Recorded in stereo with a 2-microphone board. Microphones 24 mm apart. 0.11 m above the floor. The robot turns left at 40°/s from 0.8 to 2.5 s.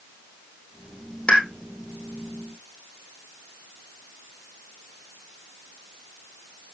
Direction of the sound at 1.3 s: 50° left (ahead or behind).